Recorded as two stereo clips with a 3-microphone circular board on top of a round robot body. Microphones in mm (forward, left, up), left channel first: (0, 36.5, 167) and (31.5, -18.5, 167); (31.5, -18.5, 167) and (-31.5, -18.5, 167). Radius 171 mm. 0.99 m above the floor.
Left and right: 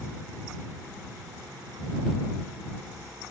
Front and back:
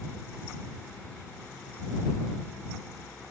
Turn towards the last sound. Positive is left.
No sound to turn to.